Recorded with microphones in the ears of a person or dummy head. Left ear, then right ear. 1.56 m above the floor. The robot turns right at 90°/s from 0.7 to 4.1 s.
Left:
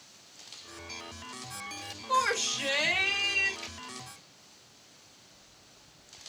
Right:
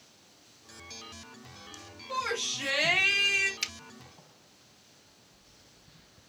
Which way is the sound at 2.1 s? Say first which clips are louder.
Left 4 dB; 110° left.